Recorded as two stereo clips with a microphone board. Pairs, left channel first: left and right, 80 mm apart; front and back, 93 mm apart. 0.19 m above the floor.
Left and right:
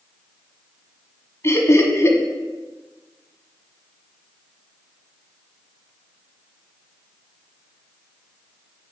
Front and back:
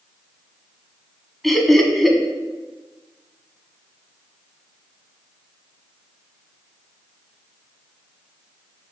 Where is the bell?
No bell in this recording.